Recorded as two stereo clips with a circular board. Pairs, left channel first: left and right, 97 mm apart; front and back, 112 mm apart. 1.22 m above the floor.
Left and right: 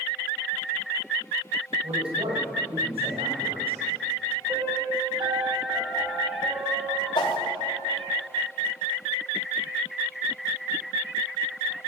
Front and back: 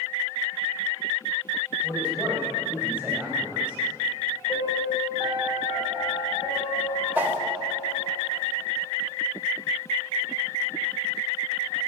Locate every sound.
1.8 s a man speaking: 100° right, 6.5 m; by 3.8 s 95° right, 8 m
4.5 s a piano: 55° right, 4 m
7.2 s a whoosh: 110° left, 1.8 m